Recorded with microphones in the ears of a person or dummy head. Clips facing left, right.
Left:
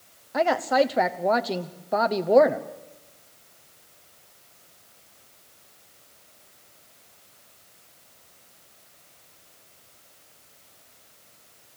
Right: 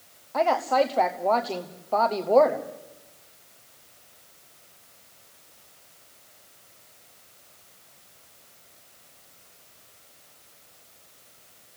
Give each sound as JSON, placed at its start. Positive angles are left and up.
{"t": 0.3, "sound": "a woman speaking", "side_deg": 10, "distance_m": 0.8}